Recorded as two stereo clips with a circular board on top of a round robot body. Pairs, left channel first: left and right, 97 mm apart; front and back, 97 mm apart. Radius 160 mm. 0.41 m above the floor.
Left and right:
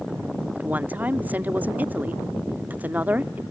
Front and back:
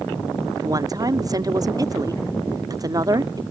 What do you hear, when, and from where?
0.6 s a woman speaking: 155° right